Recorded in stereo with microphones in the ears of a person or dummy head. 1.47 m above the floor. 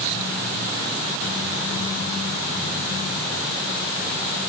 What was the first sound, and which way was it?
Only background noise.